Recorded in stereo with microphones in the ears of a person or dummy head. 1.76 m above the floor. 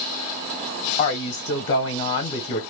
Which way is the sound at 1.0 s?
40° left (ahead or behind).